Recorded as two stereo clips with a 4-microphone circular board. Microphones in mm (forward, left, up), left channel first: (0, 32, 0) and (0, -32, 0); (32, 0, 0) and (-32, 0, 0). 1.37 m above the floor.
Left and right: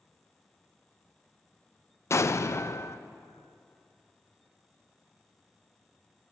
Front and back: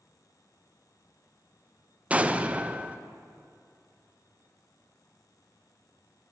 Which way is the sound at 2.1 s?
115° left.